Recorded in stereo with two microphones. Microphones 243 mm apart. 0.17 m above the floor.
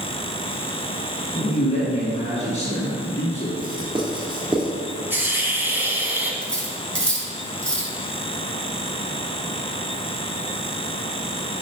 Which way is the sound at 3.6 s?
20° right (ahead or behind).